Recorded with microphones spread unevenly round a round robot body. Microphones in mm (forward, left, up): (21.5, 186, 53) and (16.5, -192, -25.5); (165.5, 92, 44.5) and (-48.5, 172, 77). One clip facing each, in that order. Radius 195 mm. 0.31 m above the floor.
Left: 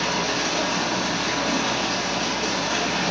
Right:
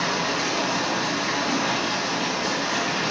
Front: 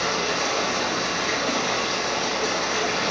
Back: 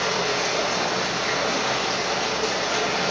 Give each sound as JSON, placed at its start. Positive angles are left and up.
{"t": 0.0, "sound": "running water", "azimuth_deg": 180, "distance_m": 2.0}